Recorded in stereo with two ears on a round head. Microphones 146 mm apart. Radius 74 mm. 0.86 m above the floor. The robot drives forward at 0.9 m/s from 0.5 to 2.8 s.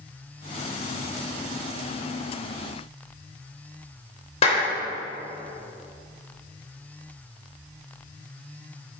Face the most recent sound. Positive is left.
turn(degrees=40)  # may be behind; listen again after turning